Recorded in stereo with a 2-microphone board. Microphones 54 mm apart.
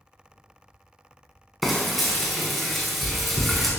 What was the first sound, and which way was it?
Frying, centre (ahead or behind).